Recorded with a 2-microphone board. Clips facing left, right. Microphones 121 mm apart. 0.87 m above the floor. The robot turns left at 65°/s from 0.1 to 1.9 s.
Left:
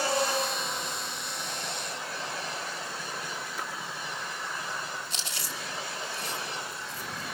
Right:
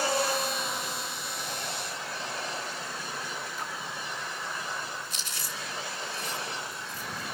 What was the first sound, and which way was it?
A splash, 80° left.